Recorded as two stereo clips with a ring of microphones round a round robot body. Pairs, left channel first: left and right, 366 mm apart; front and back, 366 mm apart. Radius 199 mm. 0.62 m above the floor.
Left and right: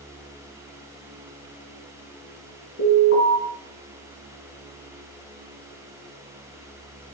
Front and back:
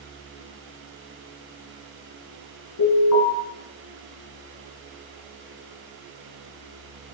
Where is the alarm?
35° left, 4.5 m.